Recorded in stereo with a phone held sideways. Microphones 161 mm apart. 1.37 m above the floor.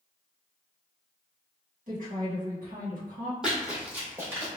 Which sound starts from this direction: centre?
Running footsteps, at 3.4 s.